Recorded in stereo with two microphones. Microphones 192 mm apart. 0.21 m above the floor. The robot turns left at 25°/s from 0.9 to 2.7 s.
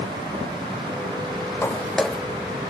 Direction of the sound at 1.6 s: 15° left (ahead or behind).